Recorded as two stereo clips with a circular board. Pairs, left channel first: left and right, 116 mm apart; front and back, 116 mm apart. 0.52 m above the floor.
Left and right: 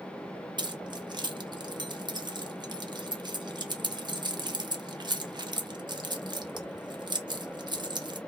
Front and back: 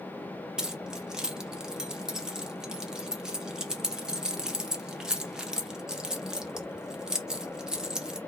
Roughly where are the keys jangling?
Right.